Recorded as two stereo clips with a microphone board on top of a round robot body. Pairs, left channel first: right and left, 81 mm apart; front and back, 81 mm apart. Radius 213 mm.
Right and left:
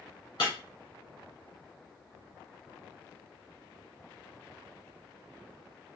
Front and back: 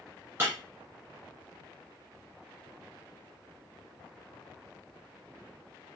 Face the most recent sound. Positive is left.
turn(degrees=-125)